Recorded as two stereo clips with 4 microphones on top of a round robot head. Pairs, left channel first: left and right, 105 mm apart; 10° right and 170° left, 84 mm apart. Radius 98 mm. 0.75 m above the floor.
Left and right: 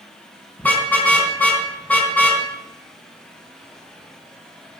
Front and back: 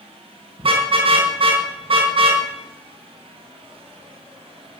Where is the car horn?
165° left, 4 m.